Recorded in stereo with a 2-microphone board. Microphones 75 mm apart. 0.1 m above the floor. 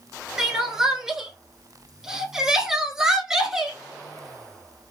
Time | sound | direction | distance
0.4 | crying | 10° right (ahead or behind) | 0.7 m